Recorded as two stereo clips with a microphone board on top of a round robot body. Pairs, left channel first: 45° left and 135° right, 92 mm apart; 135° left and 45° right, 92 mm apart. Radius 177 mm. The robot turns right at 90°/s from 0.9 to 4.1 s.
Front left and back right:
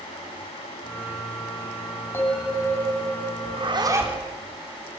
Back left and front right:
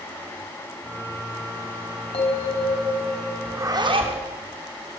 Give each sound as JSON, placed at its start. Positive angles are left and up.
{"t": 2.1, "sound": "a bell", "azimuth_deg": 110, "distance_m": 4.5}
{"t": 3.5, "sound": "a zipper", "azimuth_deg": -120, "distance_m": 6.0}